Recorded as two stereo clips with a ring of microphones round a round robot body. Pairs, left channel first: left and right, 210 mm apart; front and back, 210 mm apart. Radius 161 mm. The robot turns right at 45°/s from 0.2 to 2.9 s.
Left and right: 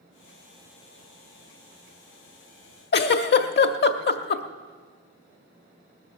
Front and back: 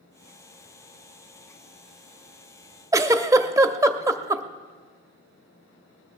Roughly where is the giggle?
Left.